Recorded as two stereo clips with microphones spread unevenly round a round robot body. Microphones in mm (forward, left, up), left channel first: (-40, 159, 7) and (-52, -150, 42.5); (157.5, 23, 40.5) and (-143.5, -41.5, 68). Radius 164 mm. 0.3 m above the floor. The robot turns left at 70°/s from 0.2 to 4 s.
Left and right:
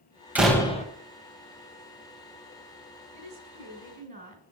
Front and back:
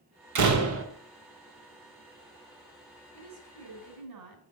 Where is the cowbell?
I don't hear a cowbell.